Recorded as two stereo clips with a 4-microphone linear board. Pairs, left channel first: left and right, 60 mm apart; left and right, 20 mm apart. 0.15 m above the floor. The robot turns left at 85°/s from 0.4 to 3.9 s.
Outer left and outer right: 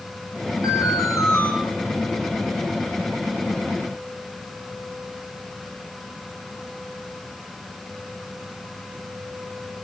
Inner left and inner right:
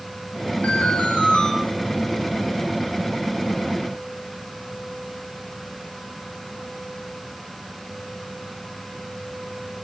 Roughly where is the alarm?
Left.